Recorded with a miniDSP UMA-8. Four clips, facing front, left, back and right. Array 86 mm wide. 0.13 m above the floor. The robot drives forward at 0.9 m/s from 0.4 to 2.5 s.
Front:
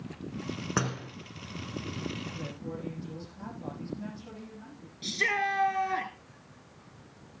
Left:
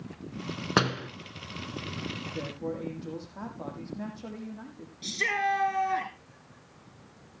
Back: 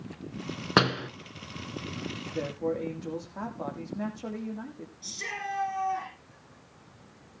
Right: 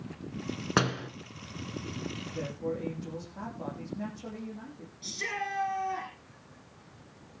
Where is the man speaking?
165° left, 6 m.